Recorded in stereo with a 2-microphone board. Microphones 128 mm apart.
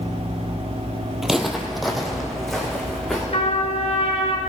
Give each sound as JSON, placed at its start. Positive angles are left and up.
{"t": 1.2, "sound": "footsteps", "side_deg": -5, "distance_m": 0.9}
{"t": 3.3, "sound": "a trumpet", "side_deg": 50, "distance_m": 1.2}